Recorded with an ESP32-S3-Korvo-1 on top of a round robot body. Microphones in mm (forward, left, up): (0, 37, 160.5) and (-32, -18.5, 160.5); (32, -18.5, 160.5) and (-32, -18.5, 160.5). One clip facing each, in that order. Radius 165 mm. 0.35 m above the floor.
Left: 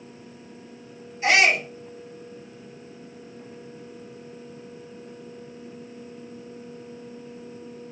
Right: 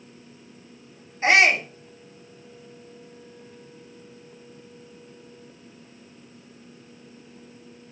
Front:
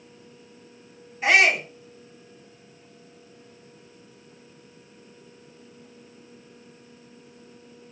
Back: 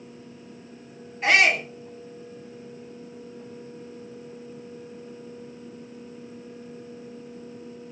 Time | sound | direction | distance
1.2 | a shout | 85° right | 1.8 m